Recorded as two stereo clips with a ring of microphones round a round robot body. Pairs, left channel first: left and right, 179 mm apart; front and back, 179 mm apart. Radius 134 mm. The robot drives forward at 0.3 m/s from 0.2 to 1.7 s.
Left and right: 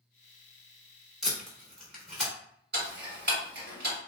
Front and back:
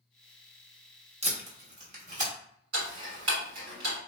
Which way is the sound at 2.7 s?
145° right.